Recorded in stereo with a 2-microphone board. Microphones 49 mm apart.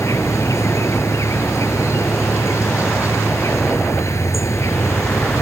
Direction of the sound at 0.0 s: 80° left.